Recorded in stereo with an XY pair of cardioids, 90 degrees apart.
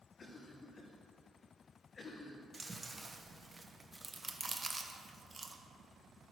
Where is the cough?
45° left, 1.1 m.